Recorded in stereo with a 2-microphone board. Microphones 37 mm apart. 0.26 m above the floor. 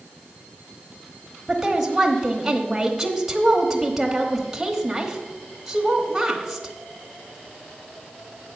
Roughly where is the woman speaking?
Centre.